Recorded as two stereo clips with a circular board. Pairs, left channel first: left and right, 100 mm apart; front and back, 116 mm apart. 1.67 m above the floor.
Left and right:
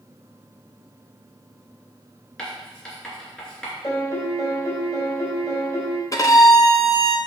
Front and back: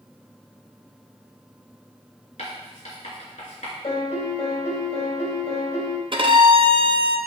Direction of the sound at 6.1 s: 140° left.